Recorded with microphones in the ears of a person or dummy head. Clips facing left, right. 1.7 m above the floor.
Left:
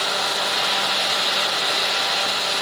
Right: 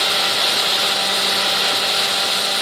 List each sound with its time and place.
Only background noise.